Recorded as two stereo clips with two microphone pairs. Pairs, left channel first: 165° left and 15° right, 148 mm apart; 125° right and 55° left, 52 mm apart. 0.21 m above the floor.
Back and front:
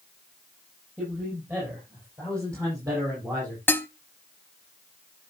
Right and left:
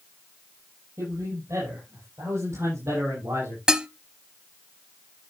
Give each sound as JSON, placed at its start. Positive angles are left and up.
{"t": 1.0, "sound": "a man speaking", "azimuth_deg": 55, "distance_m": 8.0}
{"t": 3.7, "sound": "dishes clattering", "azimuth_deg": 105, "distance_m": 0.7}